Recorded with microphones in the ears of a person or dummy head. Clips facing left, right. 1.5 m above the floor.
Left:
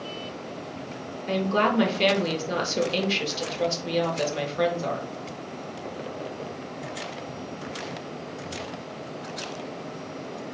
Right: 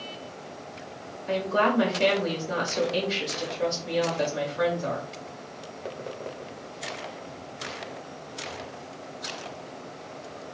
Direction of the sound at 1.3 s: 45° left (ahead or behind).